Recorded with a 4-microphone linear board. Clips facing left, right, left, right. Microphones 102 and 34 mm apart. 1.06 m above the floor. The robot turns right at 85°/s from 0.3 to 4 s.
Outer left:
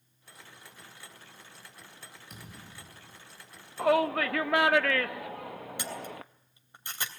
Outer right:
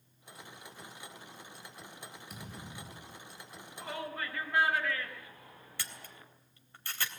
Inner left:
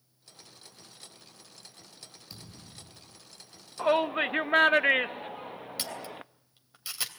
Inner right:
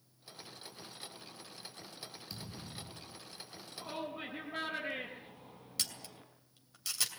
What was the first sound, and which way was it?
A thud, 175° right.